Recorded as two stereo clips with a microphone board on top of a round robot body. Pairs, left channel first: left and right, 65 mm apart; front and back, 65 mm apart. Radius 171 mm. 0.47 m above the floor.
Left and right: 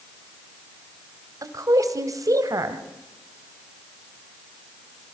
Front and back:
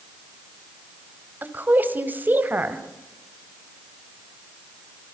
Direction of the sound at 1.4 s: 120° right.